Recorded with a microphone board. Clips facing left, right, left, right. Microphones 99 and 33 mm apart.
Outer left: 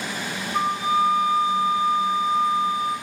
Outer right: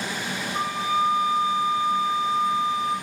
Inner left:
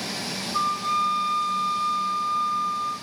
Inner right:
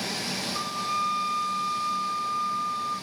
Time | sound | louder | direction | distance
0.5 | a flute | outer left 3 dB, inner left 7 dB | 65° left (ahead or behind) | 3 m